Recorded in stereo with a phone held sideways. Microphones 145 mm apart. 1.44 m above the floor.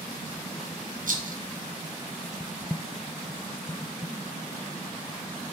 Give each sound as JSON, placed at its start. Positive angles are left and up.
{"t": 1.1, "sound": "a rattle", "side_deg": -65, "distance_m": 0.6}